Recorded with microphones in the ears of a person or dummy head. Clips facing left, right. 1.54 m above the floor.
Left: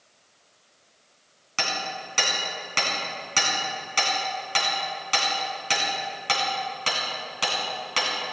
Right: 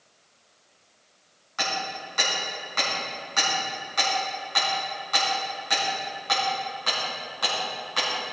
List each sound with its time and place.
1.6 s hammering: 45° left (ahead or behind), 3.5 m